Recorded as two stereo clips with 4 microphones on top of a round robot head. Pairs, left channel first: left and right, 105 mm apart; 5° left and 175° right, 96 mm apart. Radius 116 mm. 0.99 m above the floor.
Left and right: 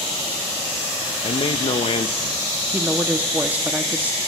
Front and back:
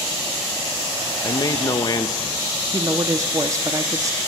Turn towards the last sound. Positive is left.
turn(degrees=-155)